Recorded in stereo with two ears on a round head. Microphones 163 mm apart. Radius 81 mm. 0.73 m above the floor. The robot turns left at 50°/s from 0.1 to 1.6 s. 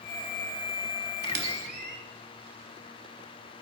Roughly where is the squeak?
Right.